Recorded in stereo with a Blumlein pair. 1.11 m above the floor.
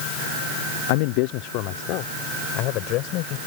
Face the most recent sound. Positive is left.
turn(degrees=40)